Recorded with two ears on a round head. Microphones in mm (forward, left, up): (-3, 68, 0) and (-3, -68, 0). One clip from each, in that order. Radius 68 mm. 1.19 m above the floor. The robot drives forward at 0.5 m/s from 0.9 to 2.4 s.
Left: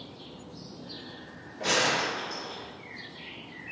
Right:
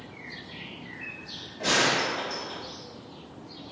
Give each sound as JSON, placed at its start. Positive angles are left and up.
{"t": 1.6, "sound": "a gunshot", "side_deg": -30, "distance_m": 1.1}